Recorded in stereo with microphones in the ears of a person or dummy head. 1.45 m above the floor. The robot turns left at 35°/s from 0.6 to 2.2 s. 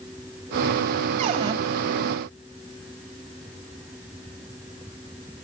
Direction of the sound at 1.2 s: 30° right (ahead or behind).